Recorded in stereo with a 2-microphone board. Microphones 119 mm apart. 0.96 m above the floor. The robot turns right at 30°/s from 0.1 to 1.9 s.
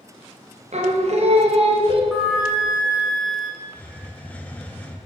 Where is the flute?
5° left (ahead or behind), 1.9 m.